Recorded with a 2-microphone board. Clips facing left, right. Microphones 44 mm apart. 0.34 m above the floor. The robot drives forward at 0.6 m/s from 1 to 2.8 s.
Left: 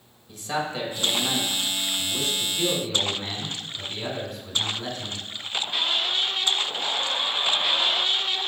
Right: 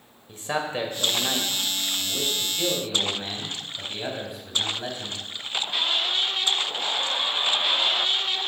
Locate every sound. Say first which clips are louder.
0.3 s a man speaking: right 1 dB; 35° right (ahead or behind), 1.0 m; by 5.2 s 20° right (ahead or behind), 1.6 m